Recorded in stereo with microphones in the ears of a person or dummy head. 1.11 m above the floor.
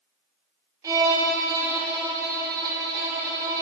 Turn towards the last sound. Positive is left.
turn(degrees=-20)  # may be behind; listen again after turning